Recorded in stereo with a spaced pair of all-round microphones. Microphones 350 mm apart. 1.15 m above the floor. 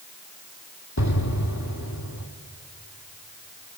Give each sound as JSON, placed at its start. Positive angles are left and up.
{"t": 1.0, "sound": "an explosion", "side_deg": 55, "distance_m": 1.6}